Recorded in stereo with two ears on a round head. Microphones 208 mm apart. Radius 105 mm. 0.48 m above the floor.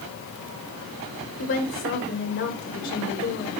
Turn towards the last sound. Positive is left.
turn(degrees=55)  # may be behind; listen again after turning